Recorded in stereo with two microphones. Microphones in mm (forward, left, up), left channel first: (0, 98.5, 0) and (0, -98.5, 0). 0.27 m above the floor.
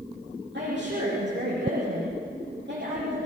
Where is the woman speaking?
70° right (ahead or behind), 9.5 m.